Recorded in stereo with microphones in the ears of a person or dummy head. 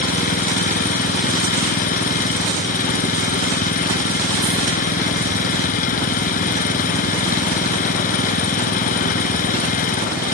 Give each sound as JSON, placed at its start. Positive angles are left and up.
{"t": 0.0, "sound": "an engine running", "side_deg": 45}